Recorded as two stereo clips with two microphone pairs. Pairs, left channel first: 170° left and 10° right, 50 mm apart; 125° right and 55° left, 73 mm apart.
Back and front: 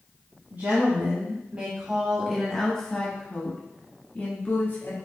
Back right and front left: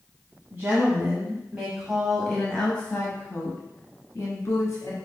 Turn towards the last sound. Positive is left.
turn(degrees=-160)